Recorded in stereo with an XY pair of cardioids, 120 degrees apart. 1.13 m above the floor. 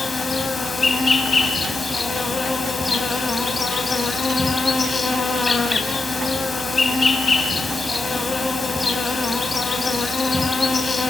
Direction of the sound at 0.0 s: 20° left.